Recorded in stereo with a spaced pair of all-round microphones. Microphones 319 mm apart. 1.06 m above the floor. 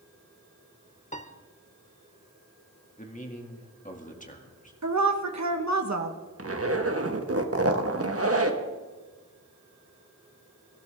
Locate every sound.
1.1 s a piano: 20° left (ahead or behind), 0.9 m
3.0 s a man speaking: 25° left (ahead or behind), 1.9 m
4.8 s a woman speaking: 55° right (ahead or behind), 1.1 m
6.4 s a zipper: 45° right (ahead or behind), 1.2 m